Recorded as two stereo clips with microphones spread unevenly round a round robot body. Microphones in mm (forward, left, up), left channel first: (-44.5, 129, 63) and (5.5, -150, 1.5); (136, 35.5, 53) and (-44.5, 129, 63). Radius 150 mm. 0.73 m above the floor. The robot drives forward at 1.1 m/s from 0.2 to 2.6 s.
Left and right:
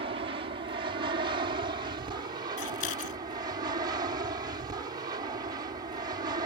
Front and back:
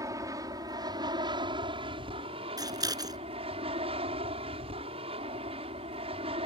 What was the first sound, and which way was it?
An aircraft, 135° right.